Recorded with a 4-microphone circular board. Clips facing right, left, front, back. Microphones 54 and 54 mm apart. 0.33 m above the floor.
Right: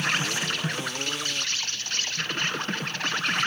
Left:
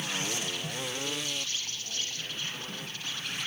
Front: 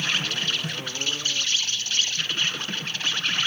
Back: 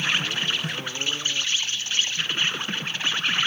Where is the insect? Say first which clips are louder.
Right 7 dB, back 1 dB; 110° right, 1.1 m.